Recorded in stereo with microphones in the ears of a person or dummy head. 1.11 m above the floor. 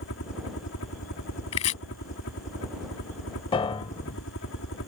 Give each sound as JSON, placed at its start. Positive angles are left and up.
{"t": 0.0, "sound": "a helicopter", "side_deg": 55}
{"t": 1.5, "sound": "chopping", "side_deg": 35}
{"t": 3.5, "sound": "a piano", "side_deg": 30}